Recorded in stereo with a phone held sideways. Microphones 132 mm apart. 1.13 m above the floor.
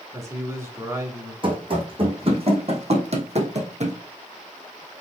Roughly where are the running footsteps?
Right.